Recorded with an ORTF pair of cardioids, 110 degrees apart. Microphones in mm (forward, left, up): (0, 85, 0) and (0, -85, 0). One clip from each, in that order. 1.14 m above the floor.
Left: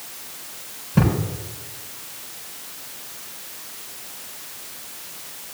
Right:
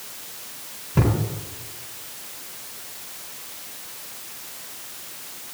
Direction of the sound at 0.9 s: Straight ahead.